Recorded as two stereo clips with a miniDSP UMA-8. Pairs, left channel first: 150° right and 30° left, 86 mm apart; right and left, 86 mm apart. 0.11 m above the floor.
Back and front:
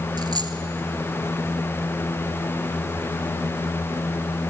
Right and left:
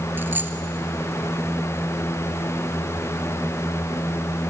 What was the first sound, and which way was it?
A dropped coin, 30° left.